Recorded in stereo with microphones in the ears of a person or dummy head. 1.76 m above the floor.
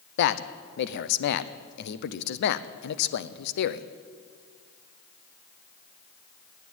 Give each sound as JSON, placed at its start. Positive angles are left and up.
{"t": 0.2, "sound": "a man speaking", "side_deg": 60, "distance_m": 0.7}